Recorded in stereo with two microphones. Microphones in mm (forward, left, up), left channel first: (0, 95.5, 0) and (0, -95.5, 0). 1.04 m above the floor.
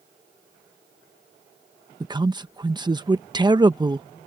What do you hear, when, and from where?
2.0 s a man speaking: 20° right (ahead or behind)